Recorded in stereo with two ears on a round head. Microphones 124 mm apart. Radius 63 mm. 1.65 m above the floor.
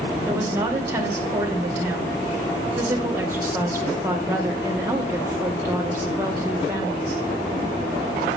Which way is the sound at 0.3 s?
20° right (ahead or behind).